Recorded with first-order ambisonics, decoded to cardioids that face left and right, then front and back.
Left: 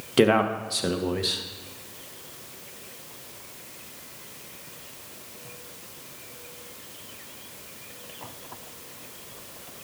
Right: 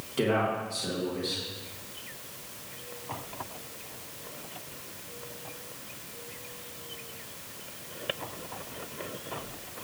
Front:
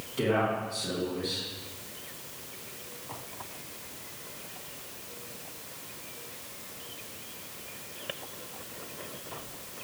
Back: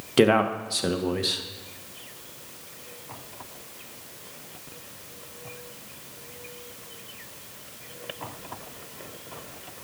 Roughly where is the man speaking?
Behind left.